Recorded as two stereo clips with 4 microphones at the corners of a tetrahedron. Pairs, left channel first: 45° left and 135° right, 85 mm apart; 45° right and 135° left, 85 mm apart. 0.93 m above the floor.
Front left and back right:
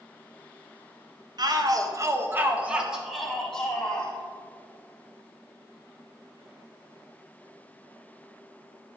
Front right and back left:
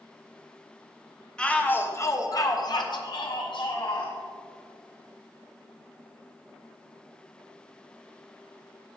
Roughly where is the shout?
Behind right.